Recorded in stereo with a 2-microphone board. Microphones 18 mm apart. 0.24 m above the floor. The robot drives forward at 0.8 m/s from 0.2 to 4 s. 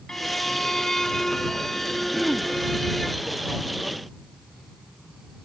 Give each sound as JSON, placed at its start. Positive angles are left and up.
{"t": 0.1, "sound": "a violin", "side_deg": 40}
{"t": 2.1, "sound": "throat clearing", "side_deg": 30}